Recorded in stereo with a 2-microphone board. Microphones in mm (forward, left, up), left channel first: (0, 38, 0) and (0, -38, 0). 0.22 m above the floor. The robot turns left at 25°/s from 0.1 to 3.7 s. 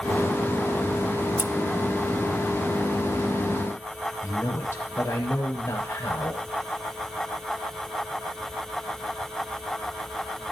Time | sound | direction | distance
1.4 | scissors | 30° right (ahead or behind) | 0.9 m
4.2 | a man speaking | 35° left (ahead or behind) | 8.5 m